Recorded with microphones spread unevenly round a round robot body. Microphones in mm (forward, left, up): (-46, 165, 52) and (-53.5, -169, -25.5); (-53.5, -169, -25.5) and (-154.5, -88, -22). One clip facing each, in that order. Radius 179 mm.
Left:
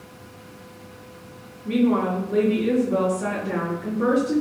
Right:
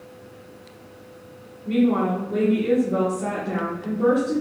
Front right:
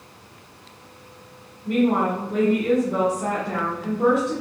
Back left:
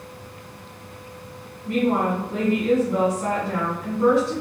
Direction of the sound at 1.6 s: 15° left.